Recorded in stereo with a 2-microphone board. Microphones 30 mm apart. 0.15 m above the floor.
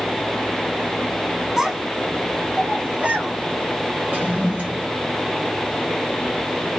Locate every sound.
1.6 s a child speaking: 15° right (ahead or behind), 0.9 m; by 3.3 s 35° right (ahead or behind), 1.2 m
4.1 s a toilet flushing: 50° right (ahead or behind), 1.4 m